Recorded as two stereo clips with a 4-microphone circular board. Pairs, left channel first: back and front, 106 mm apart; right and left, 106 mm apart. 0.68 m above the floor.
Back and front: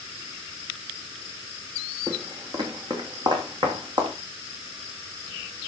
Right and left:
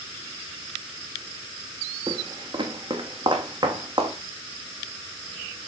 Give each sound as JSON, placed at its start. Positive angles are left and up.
{"t": 2.1, "sound": "footsteps", "azimuth_deg": 55, "distance_m": 2.0}